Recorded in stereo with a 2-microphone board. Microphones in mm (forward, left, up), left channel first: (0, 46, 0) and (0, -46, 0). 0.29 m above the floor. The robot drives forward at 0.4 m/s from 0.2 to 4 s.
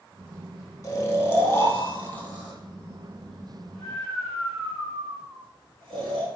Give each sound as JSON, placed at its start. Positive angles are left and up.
{"t": 0.8, "sound": "snoring", "side_deg": 40, "distance_m": 0.6}